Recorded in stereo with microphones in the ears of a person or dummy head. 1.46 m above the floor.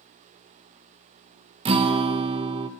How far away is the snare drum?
I don't hear a snare drum.